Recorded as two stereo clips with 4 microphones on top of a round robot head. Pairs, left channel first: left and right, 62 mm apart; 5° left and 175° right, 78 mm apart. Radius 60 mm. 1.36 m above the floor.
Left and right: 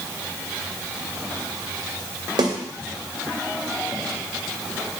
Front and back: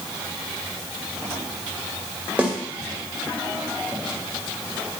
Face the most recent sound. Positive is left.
turn(degrees=-100)